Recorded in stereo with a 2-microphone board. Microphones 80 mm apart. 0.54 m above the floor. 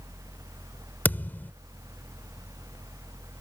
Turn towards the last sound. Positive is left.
turn(degrees=25)  # may be behind; listen again after turning